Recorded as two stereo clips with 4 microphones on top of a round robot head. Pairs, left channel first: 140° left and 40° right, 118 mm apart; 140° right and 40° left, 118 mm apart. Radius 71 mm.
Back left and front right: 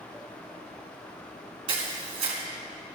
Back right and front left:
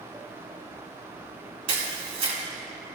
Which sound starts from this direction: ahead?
A camera shutter, at 1.7 s.